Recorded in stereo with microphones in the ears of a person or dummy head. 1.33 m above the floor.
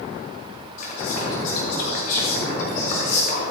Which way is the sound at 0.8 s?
50° left (ahead or behind).